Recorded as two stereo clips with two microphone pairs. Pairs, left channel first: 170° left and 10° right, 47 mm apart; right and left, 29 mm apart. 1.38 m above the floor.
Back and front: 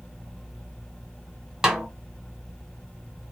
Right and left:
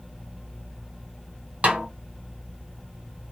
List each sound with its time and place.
1.6 s a snare drum: 70° left, 0.9 m